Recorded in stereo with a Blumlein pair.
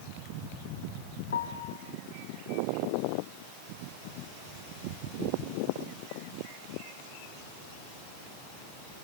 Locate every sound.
1.3 s a piano: 65° left, 1.8 m